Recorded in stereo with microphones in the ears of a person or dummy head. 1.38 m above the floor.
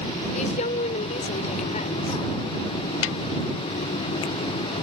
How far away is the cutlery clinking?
I don't hear cutlery clinking.